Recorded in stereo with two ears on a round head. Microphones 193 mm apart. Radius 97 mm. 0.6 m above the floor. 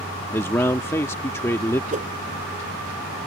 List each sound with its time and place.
0.3 s a man speaking: 10° left (ahead or behind)
1.9 s a whoosh: 35° right (ahead or behind)